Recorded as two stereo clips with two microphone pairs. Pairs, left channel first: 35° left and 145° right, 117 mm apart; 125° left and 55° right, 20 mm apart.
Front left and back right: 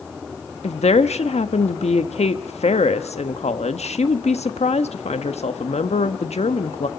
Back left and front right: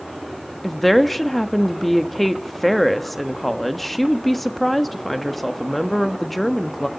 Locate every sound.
0.6 s a woman speaking: 40° left, 1.2 m